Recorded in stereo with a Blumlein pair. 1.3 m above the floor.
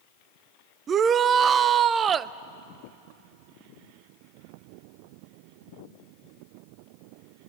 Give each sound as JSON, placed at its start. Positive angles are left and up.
{"t": 0.9, "sound": "a shout", "azimuth_deg": -25, "distance_m": 0.6}